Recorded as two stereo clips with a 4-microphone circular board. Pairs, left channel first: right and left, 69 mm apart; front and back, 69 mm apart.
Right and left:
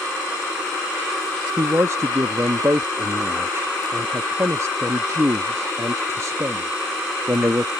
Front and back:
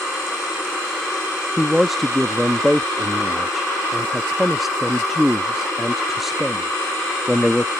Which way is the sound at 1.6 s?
95° left.